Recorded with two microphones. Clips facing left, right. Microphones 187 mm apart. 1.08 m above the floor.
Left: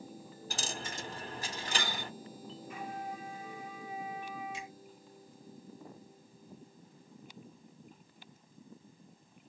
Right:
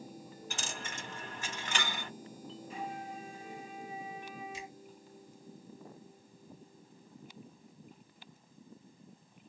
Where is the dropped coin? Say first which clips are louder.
Left 3 dB; 35° left (ahead or behind), 0.7 m.